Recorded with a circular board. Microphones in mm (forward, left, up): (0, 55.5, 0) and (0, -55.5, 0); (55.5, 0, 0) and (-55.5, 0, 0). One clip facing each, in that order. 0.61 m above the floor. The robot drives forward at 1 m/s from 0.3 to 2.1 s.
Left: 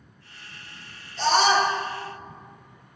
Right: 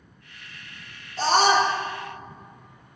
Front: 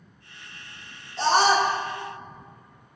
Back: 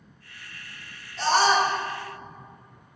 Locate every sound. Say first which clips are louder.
1.2 s a scream: right 1 dB, front 1 dB; 55° right, 2.0 m; by 1.7 s 70° right, 1.8 m